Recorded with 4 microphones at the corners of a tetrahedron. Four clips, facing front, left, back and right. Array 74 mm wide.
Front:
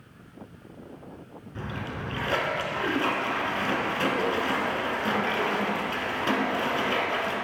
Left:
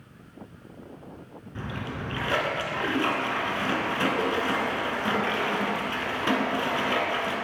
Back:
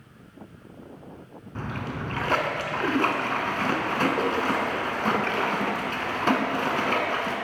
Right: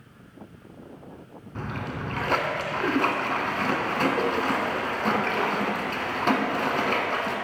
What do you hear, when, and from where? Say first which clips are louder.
1.6 s a splash: right 2 dB, back 2 dB; 145° right, 0.7 m